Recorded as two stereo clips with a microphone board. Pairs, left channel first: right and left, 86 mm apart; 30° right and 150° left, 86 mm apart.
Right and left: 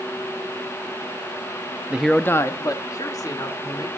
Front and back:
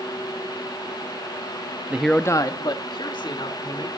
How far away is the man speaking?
About 0.6 m.